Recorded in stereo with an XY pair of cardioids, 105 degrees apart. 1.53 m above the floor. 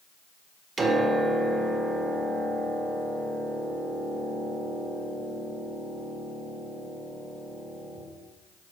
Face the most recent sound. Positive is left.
turn(degrees=-35)